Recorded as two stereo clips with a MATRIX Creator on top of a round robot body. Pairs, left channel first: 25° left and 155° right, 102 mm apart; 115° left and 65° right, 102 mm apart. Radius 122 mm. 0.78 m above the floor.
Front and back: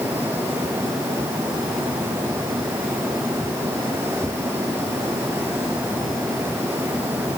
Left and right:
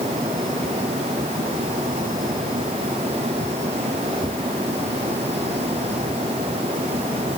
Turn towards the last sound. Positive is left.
No sound to turn to.